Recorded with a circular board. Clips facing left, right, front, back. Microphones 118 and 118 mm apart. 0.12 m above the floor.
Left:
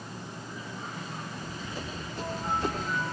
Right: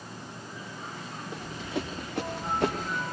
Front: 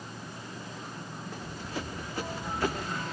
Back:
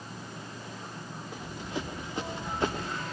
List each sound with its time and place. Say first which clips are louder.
1.3 s running footsteps: right 4 dB, back 2 dB; 105° right, 4.5 m; by 3.0 s 115° right, 4 m